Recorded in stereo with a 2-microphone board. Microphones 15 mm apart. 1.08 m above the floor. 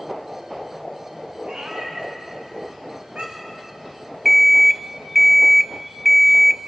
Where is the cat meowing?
80° right, 5 m.